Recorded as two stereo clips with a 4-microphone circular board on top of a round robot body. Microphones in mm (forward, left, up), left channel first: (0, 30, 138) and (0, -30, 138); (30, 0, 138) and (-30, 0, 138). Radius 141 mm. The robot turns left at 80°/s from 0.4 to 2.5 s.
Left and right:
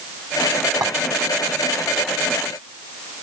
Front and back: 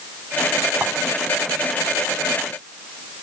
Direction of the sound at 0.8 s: 105° right.